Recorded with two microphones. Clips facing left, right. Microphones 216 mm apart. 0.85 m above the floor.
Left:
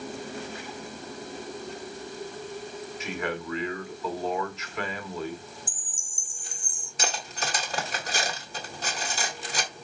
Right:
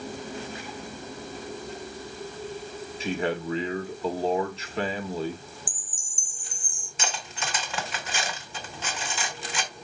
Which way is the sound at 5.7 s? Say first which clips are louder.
Right 1 dB; 25° left (ahead or behind).